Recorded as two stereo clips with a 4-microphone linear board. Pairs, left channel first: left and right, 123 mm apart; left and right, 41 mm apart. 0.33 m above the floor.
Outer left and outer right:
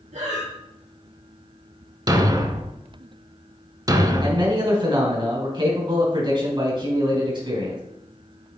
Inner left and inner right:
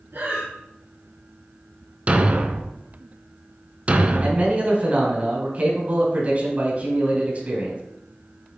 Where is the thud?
30° right (ahead or behind), 0.7 m.